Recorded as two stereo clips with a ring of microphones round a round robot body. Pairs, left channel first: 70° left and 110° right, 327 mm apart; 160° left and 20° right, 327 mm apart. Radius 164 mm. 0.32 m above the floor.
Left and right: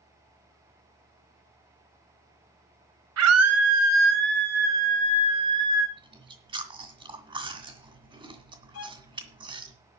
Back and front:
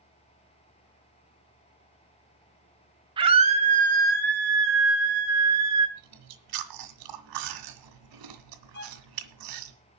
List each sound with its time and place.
3.2 s a scream: 95° right, 2 m; by 5.9 s 35° right, 2 m
6.0 s chewing: 40° right, 1.8 m
8.7 s a violin: 105° left, 1.4 m